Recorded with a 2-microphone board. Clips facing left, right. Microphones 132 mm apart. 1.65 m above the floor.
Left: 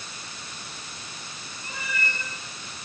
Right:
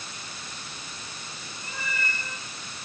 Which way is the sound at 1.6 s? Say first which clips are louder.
Left 1 dB; 75° left (ahead or behind).